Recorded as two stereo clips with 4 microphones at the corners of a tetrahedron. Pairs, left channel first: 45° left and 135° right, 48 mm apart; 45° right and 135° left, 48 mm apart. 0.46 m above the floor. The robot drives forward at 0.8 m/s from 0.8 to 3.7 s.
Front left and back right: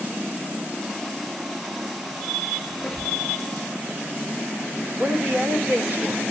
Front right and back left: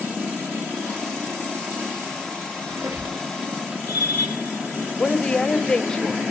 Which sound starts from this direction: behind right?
A woman speaking, at 5.0 s.